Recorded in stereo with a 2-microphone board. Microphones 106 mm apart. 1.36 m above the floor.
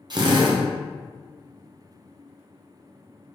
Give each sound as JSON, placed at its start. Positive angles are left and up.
{"t": 0.1, "sound": "a drill", "side_deg": -45, "distance_m": 0.6}